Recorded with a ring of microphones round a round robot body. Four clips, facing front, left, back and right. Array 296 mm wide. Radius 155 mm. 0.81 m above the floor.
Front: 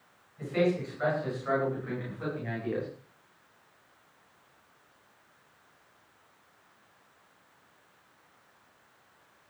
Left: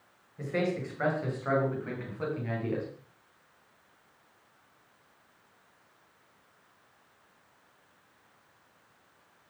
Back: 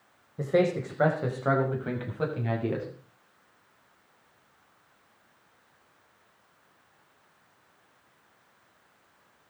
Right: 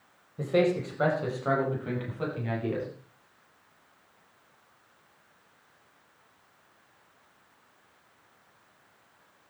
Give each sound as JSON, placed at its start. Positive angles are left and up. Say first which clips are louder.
{"t": 0.4, "sound": "a man speaking", "louder": "right 6 dB, back 3 dB", "azimuth_deg": -155, "distance_m": 5.0}